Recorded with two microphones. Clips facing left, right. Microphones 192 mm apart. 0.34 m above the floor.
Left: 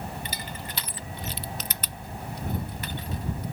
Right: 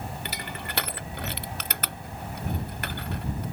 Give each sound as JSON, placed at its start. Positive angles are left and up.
{"t": 0.2, "sound": "crushing", "side_deg": -65}